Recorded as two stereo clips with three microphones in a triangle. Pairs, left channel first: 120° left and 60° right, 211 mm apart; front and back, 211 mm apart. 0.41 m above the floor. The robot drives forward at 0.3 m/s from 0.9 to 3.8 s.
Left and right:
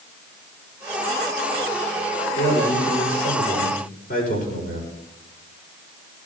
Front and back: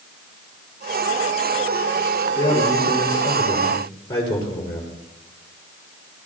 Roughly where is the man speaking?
Left.